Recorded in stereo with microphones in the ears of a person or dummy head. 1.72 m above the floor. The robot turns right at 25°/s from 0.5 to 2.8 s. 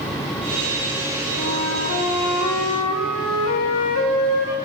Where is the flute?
55° left, 1.8 m; by 4.5 s 90° left, 1.8 m.